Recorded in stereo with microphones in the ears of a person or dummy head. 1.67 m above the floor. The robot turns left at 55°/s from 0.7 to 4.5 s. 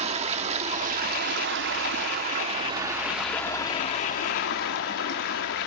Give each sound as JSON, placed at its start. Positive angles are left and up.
{"t": 0.0, "sound": "running water", "azimuth_deg": -45, "distance_m": 1.0}